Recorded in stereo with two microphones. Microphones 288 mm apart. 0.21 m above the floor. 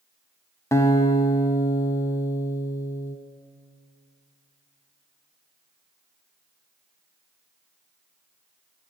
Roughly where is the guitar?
Centre.